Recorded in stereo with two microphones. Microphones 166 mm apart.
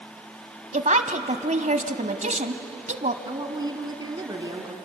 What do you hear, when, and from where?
0.7 s a woman speaking: 50° right (ahead or behind), 1.4 m
3.2 s a woman speaking: 25° right (ahead or behind), 2 m